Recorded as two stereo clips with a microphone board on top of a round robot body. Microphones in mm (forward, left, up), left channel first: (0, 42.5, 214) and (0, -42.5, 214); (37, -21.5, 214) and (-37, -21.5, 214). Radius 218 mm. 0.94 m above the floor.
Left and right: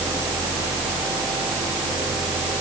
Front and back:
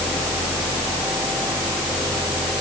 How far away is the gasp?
No gasp in this recording.